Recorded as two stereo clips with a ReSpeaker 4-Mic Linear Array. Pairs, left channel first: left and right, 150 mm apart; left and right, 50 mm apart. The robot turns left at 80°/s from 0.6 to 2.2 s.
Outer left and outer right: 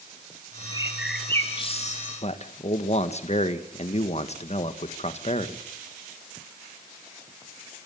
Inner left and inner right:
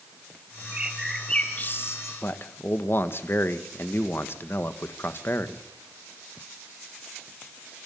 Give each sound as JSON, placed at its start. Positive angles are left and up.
{"t": 0.7, "sound": "a bird", "azimuth_deg": -150, "distance_m": 2.5}
{"t": 2.2, "sound": "a man speaking", "side_deg": 45, "distance_m": 1.6}